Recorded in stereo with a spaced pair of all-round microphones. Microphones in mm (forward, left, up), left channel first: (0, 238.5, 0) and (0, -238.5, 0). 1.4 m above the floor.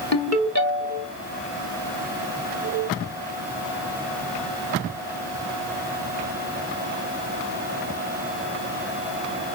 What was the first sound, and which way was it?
A ringtone, 35° left (ahead or behind).